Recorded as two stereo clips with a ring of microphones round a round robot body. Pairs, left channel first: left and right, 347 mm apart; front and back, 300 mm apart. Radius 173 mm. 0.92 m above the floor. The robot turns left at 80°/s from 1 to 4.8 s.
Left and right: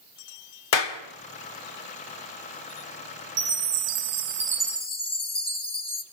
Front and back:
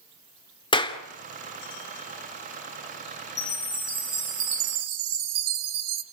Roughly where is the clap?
Left.